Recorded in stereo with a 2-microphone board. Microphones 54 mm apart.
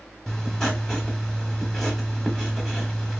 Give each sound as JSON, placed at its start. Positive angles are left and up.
{"t": 0.3, "sound": "writing", "side_deg": 5, "distance_m": 0.8}